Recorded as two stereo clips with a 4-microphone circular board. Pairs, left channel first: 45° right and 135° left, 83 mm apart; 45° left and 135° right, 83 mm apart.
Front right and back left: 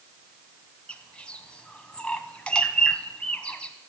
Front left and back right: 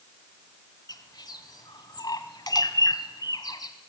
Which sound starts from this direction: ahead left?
A bird, at 0.9 s.